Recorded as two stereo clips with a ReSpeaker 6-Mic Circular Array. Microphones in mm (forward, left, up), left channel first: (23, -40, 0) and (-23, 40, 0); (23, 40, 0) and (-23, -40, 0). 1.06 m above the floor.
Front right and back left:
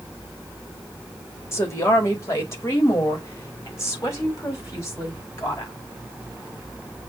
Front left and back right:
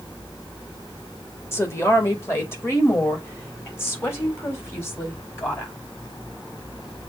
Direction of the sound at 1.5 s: Straight ahead.